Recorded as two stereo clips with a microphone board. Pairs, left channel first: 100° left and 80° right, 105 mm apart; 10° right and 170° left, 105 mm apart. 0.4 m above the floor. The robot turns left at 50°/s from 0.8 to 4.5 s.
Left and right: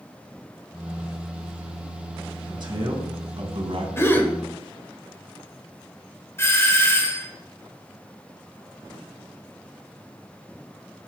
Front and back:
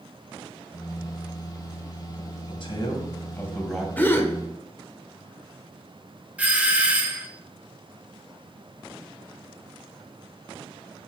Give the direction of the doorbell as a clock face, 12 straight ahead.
8 o'clock.